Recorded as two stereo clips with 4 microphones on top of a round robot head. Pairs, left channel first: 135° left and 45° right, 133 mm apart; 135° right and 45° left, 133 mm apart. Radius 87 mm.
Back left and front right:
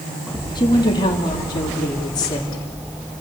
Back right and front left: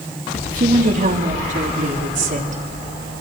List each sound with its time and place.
0.6 s a woman speaking: 75° left, 2.5 m; by 2.6 s 70° left, 4.5 m